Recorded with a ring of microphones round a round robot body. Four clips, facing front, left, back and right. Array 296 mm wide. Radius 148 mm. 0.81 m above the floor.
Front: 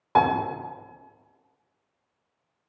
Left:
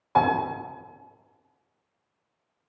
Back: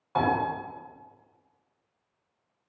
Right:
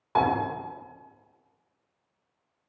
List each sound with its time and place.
0.1 s a piano: 5° right, 2.5 m